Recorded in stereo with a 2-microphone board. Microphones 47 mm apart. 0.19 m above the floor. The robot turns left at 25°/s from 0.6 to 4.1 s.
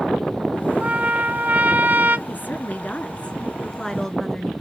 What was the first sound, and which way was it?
A trumpet, 50° right.